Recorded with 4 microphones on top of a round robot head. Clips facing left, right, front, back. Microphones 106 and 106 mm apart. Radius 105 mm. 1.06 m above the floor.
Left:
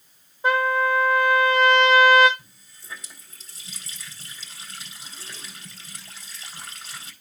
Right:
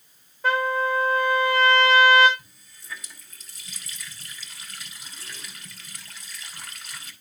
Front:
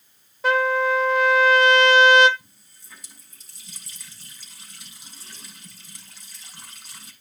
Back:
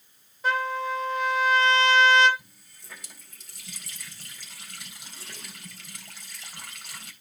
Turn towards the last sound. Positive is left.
turn(degrees=155)